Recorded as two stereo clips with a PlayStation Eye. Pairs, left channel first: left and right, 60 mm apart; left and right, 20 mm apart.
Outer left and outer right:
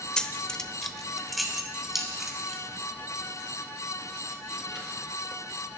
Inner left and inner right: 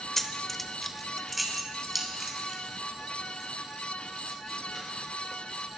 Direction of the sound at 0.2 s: 15° left (ahead or behind).